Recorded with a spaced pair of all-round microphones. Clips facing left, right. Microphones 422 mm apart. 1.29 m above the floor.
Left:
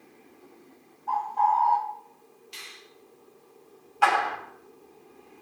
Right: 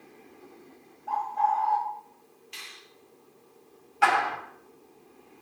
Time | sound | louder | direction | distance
1.1 | a bird | left 2 dB | 15° left (ahead or behind) | 1.4 m
2.5 | a finger snap | left 2 dB | 60° left (ahead or behind) | 3 m
4.0 | a clap | left 1 dB | 35° right (ahead or behind) | 2.5 m